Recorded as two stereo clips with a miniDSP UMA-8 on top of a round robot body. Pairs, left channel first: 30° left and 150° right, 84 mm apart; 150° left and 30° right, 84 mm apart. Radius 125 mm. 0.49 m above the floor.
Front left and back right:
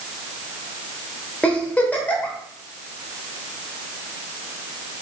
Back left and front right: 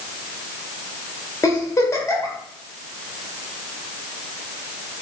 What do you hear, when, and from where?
1.4 s a giggle: 100° left, 1.4 m